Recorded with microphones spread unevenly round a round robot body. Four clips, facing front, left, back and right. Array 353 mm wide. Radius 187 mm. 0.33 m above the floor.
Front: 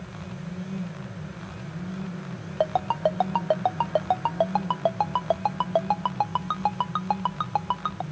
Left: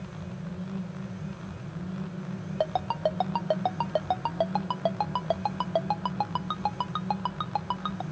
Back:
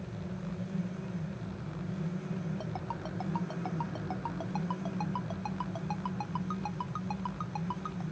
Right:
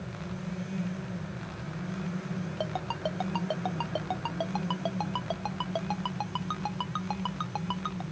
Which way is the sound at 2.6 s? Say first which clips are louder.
Left 8 dB, front 15 dB; 10° left.